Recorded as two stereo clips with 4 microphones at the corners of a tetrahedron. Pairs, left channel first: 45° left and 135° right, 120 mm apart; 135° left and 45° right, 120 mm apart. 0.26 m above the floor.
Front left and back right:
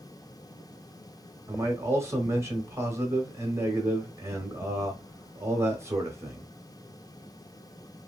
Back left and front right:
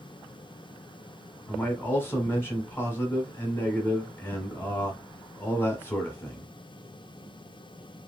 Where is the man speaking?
175° right, 1.0 m.